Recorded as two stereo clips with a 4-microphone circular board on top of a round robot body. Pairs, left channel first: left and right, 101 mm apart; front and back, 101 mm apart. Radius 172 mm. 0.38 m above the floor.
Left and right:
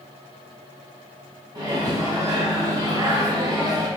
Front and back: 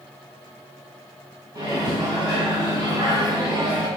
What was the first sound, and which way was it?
A microwave, 135° right.